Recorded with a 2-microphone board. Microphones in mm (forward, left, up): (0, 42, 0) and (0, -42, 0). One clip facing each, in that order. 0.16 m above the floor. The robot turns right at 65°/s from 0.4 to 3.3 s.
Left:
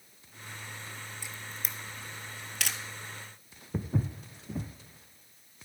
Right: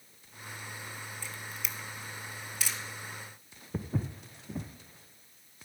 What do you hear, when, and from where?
1.2 s a camera shutter: 15° left (ahead or behind), 0.9 m; by 2.8 s 60° left (ahead or behind), 0.9 m
3.7 s footsteps: centre (ahead or behind), 0.7 m